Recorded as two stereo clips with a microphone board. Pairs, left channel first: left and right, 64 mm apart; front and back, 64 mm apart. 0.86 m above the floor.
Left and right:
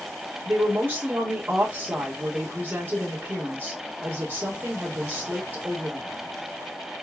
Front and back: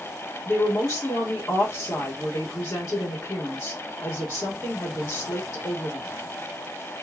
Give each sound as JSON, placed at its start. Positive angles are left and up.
{"t": 0.5, "sound": "a woman speaking", "azimuth_deg": -40, "distance_m": 2.0}